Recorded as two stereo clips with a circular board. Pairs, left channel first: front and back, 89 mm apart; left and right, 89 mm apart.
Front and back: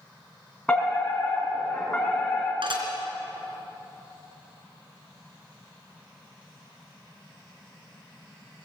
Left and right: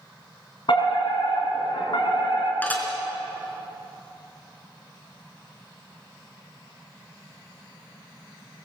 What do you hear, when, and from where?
0.7 s a fire alarm: 80° left, 5 m
2.6 s dishes clattering: 160° left, 3.5 m